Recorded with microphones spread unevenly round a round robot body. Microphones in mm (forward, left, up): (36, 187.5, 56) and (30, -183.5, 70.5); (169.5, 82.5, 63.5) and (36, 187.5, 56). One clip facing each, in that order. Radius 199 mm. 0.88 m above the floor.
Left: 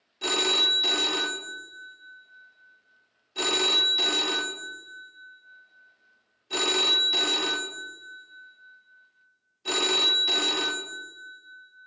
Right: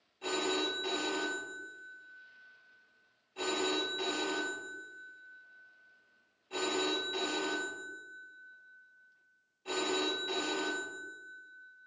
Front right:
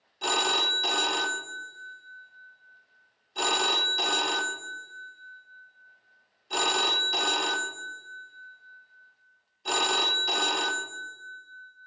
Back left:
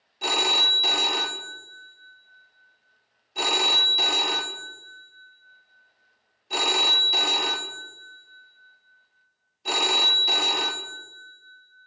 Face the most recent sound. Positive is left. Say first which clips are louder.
# left 3 dB, back left 1 dB
turn(degrees=55)